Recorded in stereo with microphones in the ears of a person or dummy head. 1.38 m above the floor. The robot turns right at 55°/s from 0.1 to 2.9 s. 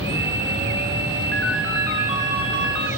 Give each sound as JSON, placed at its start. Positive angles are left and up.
{"t": 1.3, "sound": "a ringtone", "azimuth_deg": 170, "distance_m": 4.5}